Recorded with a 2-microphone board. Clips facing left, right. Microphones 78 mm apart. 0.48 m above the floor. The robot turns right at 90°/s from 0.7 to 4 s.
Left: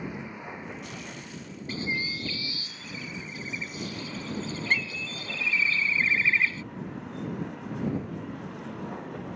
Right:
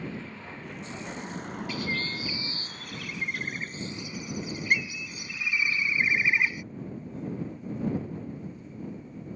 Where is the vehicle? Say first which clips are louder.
Left 1 dB; 160° left; by 9.4 s 100° left.